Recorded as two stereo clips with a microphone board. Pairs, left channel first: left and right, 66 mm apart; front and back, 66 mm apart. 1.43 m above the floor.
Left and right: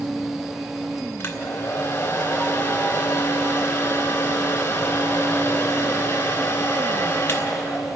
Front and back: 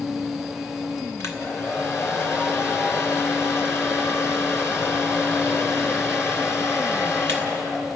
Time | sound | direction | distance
1.2 | a hair dryer | 45° left | 2.5 m